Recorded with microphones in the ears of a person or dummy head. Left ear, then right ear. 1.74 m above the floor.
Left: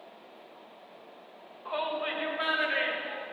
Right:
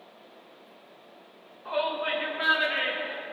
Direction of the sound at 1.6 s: 10° left (ahead or behind).